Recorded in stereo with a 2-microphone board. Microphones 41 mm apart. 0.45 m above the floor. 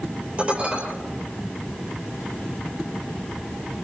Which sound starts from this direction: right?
Dishes clattering, at 0.4 s.